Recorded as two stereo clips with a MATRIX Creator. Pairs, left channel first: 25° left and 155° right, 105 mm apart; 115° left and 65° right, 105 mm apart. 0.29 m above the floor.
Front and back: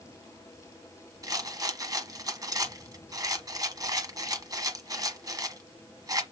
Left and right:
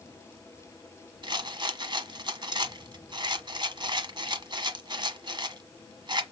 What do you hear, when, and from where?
1.2 s a rattle: 105° right, 1.2 m